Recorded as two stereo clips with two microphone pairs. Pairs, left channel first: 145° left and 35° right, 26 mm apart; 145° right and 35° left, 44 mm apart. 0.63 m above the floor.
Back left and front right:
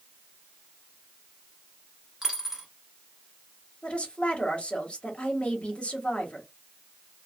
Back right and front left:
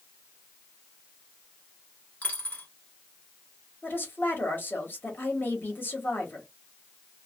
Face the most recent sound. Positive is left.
turn(degrees=180)